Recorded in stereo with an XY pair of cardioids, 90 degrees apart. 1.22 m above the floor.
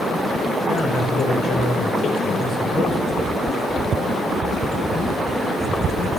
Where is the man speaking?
65° left, 6 m.